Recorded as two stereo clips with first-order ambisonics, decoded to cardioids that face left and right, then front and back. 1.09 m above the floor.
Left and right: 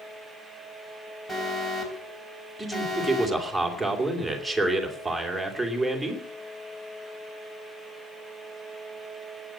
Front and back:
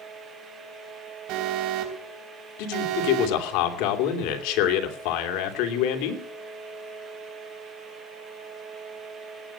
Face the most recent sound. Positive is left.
turn(degrees=0)